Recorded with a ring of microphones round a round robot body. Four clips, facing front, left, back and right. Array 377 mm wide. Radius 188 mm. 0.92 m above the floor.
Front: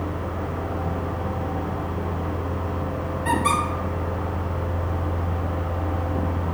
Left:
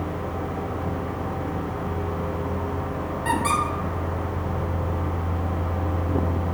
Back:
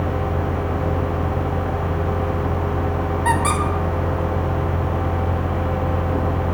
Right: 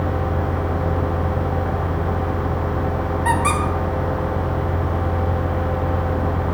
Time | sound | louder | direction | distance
3.2 | a squeak | right 3 dB, back 1 dB | 150° right | 1.1 m